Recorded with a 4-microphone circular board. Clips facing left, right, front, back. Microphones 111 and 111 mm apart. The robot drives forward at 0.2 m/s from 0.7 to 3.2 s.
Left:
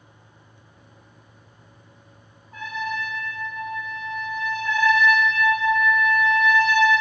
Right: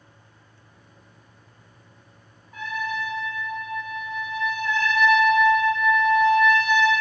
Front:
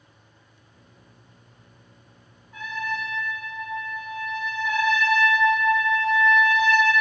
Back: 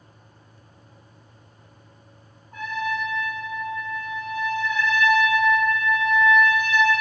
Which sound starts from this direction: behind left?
A trumpet, at 2.5 s.